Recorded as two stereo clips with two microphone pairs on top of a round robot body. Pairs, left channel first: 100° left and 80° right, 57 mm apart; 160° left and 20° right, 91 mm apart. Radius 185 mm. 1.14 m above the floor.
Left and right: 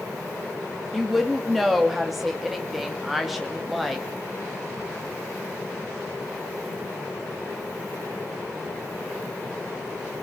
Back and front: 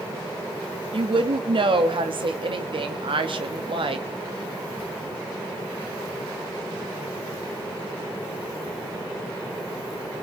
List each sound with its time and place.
0.9 s a woman speaking: 5° left, 1.9 m